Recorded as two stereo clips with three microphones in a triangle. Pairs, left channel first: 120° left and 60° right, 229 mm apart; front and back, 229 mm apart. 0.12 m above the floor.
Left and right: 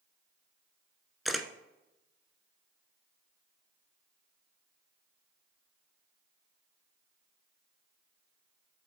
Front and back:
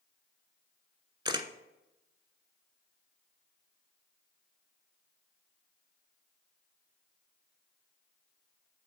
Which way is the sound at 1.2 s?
150° right.